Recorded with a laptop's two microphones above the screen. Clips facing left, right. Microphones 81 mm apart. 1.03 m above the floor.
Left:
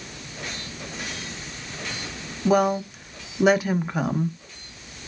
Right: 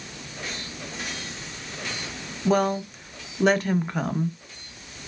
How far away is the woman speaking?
About 0.7 m.